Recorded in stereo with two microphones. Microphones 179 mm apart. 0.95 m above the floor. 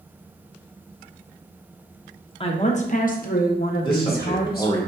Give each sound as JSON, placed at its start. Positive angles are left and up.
{"t": 2.4, "sound": "a woman speaking", "side_deg": 30, "distance_m": 0.7}
{"t": 3.8, "sound": "a man speaking", "side_deg": 25, "distance_m": 1.8}